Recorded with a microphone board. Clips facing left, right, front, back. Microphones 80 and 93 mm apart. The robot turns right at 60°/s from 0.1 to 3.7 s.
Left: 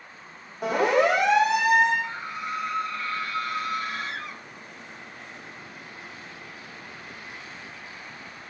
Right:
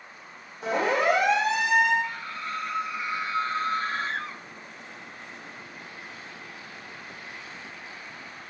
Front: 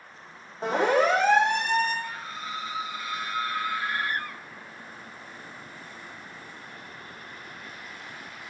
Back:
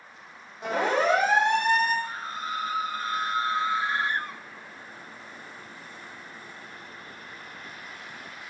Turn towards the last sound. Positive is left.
turn(degrees=-120)